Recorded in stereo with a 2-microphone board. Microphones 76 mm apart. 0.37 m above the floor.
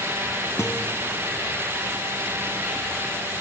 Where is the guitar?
35° left (ahead or behind), 2 m.